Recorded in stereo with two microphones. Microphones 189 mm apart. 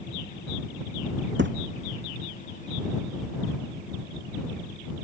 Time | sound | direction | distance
1.4 | a thud | 85° right | ?